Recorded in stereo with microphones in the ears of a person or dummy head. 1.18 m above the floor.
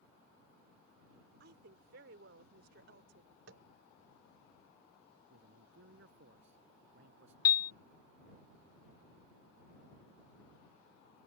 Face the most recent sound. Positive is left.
turn(degrees=20)  # may be behind; listen again after turning